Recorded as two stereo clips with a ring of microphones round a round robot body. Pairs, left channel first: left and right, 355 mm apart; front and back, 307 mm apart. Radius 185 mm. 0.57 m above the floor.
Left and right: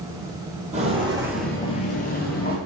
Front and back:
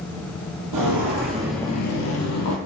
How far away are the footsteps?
About 0.9 m.